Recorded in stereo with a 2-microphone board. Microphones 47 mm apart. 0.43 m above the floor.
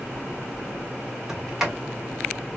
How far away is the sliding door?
About 1.1 m.